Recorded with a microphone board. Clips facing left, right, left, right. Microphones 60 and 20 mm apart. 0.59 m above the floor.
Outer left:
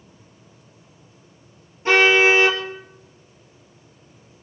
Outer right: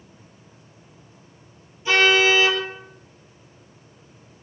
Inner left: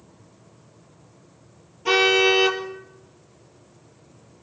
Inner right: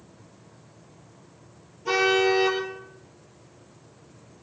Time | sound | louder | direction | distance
1.9 | a car horn | outer left 3 dB, inner left 4 dB | 45° left (ahead or behind) | 5 m